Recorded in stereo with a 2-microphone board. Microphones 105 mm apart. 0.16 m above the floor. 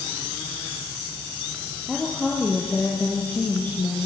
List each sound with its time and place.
1.9 s a woman speaking: centre (ahead or behind), 3.5 m; by 4.1 s 25° left (ahead or behind), 3 m